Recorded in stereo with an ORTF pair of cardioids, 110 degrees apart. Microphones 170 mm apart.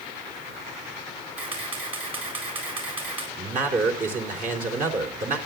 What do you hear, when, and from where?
1.4 s a camera shutter: 35° right, 7.5 m
3.4 s a man speaking: 55° right, 3.5 m